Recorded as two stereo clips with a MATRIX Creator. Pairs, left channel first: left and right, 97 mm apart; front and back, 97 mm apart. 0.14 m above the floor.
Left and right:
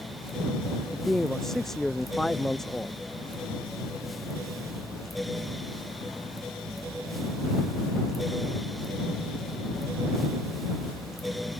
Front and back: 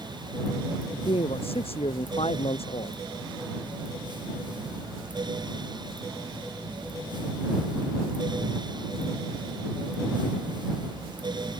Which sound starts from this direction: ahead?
A man speaking, at 0.9 s.